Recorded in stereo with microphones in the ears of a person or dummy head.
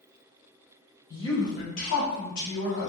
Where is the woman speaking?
25° left (ahead or behind), 0.9 m; by 2.9 s 75° left (ahead or behind), 1.3 m.